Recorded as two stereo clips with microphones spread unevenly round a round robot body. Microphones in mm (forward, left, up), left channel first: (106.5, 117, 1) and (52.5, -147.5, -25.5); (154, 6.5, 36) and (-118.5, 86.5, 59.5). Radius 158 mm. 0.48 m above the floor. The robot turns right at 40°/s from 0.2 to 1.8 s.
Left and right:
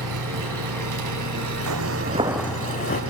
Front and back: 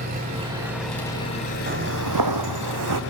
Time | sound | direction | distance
0.0 | an engine running | 130° right | 2.5 m
1.7 | footsteps | 135° right | 1.2 m